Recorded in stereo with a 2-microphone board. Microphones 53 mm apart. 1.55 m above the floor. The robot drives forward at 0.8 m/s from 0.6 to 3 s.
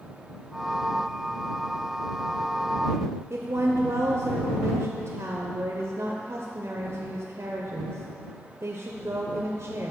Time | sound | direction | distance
3.3 | a woman speaking | 60° right (ahead or behind) | 0.6 m